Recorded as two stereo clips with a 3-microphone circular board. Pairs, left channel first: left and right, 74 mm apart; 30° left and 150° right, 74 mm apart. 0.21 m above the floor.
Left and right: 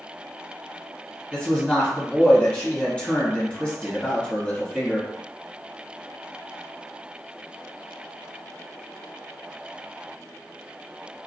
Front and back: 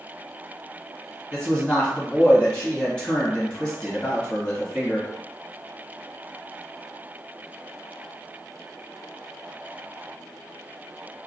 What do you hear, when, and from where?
1.3 s a man speaking: 75° left, 1.1 m